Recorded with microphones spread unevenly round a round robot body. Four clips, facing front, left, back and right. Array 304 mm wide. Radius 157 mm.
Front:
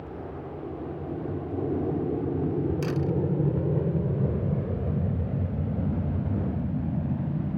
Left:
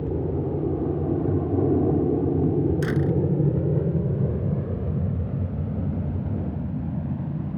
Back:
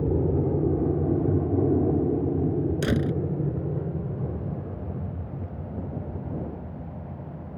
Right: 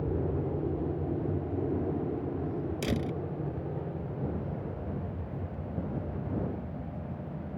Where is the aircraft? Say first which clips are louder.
Left 5 dB, back 12 dB; 160° left; by 7.6 s 45° left.